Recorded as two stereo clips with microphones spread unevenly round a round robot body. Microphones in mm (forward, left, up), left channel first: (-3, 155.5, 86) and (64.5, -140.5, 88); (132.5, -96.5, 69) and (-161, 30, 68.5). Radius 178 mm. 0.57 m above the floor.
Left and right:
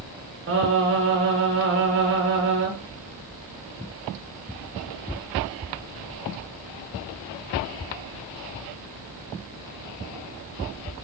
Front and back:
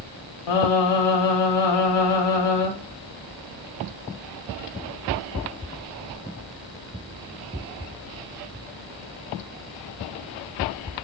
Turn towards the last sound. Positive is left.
turn(degrees=-25)